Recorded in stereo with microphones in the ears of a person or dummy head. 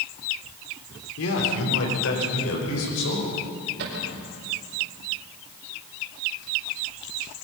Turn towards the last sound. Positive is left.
turn(degrees=-55)  # may be behind; listen again after turning